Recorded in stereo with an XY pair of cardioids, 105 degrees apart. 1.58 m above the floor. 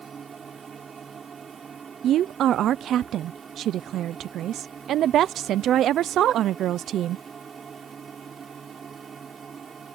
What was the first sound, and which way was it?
A machine running, 40° right.